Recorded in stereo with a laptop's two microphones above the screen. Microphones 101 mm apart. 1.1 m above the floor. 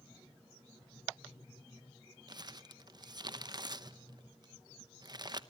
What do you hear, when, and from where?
2.3 s crumpling: 40° right (ahead or behind), 0.8 m